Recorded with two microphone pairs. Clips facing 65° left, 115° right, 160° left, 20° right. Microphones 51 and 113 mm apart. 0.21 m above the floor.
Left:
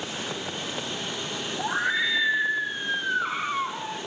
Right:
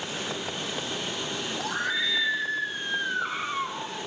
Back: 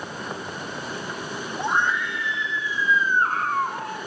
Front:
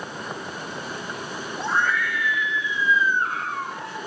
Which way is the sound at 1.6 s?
105° left.